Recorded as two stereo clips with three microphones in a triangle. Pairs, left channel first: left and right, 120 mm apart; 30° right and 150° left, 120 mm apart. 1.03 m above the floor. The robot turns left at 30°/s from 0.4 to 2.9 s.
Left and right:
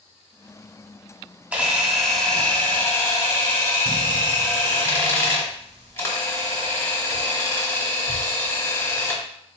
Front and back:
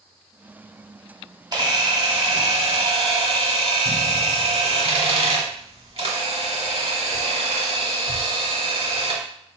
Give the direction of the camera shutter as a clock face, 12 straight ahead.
5 o'clock.